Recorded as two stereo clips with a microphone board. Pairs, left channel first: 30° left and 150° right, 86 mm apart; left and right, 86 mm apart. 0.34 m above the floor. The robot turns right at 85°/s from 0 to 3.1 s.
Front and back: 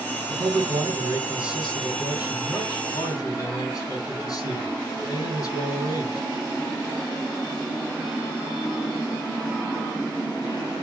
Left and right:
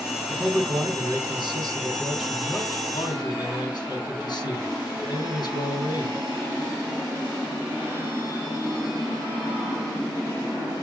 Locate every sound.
0.3 s a man speaking: 170° right, 3 m; by 6.2 s 70° left, 3 m